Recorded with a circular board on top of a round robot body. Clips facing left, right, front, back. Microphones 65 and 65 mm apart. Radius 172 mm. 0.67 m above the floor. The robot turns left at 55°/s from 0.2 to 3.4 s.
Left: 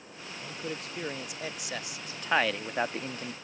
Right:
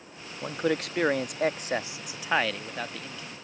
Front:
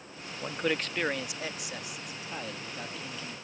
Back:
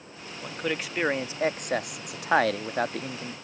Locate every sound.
0.4 s a man speaking: 75° right; by 3.3 s 125° left